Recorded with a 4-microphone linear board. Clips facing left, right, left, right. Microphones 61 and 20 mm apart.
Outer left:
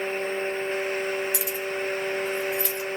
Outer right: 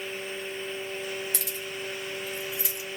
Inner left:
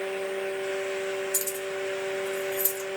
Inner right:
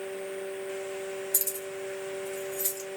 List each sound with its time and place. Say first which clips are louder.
1.3 s keys jangling: outer left 7 dB, inner left 4 dB; 10° left (ahead or behind), 1.5 m; by 3.0 s 20° right (ahead or behind), 1.6 m